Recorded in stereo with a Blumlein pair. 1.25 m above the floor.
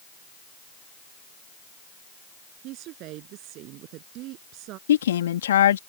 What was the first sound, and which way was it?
A woman speaking, 40° right.